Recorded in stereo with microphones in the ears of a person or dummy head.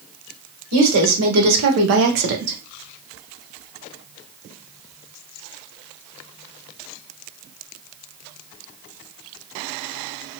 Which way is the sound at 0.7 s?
85° right.